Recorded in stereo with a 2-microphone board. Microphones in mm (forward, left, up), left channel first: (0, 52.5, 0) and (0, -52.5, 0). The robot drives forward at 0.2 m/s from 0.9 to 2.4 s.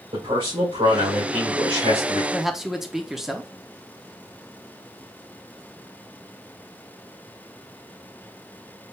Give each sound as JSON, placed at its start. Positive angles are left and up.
{"t": 0.1, "sound": "a man speaking", "side_deg": -75, "distance_m": 2.5}
{"t": 2.3, "sound": "a man speaking", "side_deg": -5, "distance_m": 0.5}